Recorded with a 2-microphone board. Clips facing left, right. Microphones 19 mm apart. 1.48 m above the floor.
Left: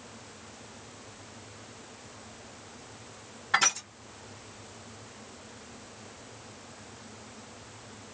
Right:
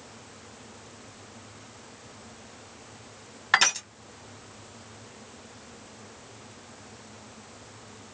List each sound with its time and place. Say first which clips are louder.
3.5 s crushing: right 3 dB; 70° right (ahead or behind), 1.5 m